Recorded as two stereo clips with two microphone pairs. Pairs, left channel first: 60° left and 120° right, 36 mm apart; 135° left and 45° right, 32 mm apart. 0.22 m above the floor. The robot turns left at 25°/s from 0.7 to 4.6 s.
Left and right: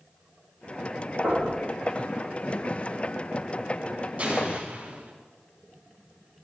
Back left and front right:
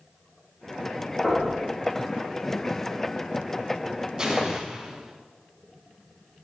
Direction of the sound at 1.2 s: 160° right.